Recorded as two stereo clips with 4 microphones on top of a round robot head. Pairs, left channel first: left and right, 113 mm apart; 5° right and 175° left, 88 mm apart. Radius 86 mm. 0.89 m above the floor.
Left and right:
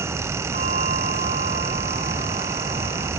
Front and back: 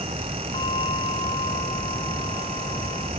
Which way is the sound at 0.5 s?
55° right.